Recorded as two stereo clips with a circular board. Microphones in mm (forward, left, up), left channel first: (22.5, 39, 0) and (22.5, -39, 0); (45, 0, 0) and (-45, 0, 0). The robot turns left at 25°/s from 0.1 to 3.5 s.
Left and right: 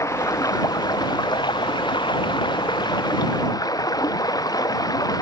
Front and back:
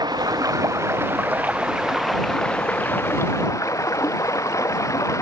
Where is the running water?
140° left; by 5.2 s 55° left.